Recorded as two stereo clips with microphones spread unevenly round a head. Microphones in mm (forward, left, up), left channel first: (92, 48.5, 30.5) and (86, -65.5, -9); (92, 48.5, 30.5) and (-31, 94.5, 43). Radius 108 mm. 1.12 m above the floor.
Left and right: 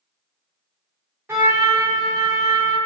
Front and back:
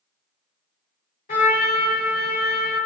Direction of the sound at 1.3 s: 25° right.